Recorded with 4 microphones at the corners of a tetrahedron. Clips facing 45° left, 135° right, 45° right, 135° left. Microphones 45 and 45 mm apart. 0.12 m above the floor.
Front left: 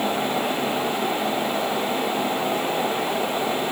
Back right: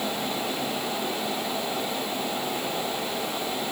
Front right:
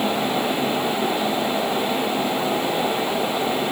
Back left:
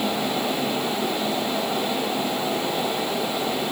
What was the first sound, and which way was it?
Only background noise.